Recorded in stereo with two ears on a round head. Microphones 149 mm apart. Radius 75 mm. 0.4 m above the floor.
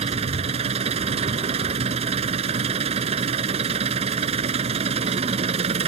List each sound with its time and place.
0.0 s an engine running: 40° right (ahead or behind)